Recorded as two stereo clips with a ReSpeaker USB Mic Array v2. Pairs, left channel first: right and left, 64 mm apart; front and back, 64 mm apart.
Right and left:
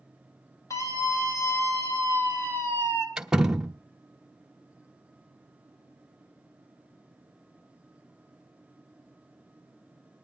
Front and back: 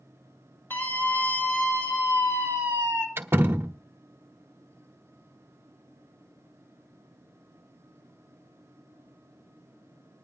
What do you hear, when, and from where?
0.7 s a scream: 55° right, 6 m; by 3.1 s 45° right, 4.5 m
3.2 s a door slam: 160° left, 1.0 m